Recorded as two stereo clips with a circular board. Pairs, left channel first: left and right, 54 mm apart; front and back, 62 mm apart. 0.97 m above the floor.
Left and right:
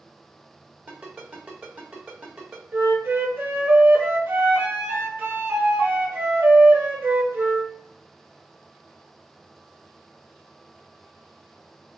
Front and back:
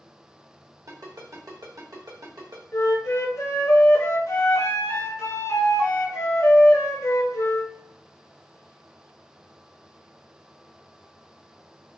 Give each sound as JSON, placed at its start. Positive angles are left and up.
{"t": 0.9, "sound": "a ringtone", "azimuth_deg": -155, "distance_m": 1.3}
{"t": 2.7, "sound": "a flute", "azimuth_deg": -40, "distance_m": 0.8}